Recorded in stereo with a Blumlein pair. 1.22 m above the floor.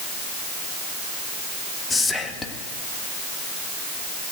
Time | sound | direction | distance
1.9 | whispering | 10° left | 1.6 m